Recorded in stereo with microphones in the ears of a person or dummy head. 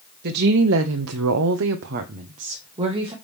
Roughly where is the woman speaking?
Right.